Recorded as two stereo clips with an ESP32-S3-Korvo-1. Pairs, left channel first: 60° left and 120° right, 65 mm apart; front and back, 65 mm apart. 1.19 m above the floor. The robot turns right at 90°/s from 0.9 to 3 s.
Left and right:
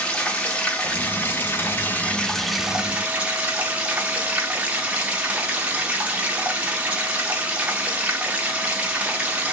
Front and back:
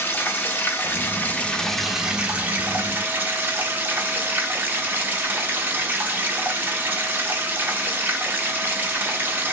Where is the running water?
5° left, 0.8 m; by 9.5 s 165° right, 0.8 m.